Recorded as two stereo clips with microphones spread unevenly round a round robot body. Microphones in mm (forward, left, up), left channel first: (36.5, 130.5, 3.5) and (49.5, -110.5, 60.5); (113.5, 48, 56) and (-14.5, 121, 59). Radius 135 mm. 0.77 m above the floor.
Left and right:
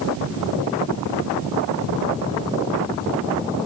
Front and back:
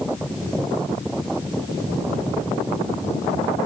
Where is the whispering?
No whispering in this recording.